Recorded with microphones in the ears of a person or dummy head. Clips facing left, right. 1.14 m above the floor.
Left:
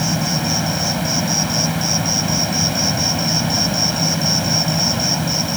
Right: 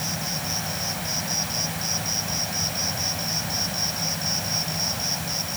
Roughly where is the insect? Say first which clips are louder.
Left 12 dB; left.